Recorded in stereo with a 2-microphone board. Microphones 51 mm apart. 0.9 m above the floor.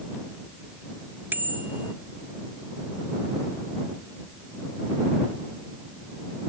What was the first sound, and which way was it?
A bicycle bell, 40° right (ahead or behind).